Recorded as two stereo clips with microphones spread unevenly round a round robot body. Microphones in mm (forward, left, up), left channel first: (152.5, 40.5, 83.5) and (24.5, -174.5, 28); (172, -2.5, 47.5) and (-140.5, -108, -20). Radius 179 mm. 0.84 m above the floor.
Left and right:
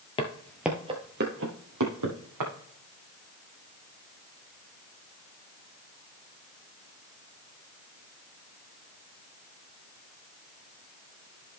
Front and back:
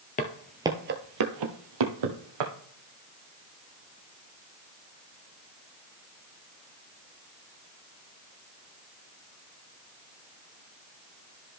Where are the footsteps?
35° left, 0.9 m; by 2.5 s 165° right, 2 m.